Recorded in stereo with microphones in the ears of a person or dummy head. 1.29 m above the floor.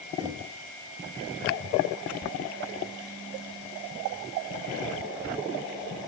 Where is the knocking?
25° right (ahead or behind), 2.5 m.